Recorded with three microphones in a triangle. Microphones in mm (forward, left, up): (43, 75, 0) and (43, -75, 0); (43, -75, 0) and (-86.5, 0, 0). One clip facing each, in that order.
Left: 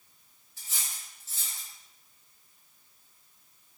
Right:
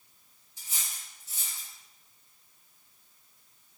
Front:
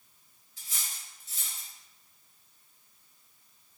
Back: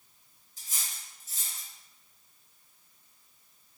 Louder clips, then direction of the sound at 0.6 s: Left 1 dB, even; 165° right.